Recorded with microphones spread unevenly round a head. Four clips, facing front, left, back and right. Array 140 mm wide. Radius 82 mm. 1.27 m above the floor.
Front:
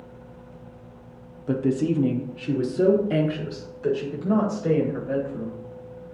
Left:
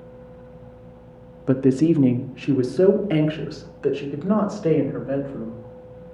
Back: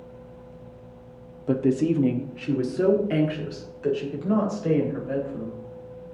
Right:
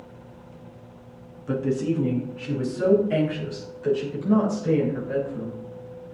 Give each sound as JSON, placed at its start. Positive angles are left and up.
{"t": 1.5, "sound": "a woman speaking", "azimuth_deg": 125, "distance_m": 0.5}